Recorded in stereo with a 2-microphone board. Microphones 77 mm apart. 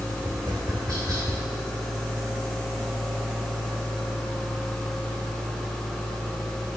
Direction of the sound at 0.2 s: 45° right (ahead or behind).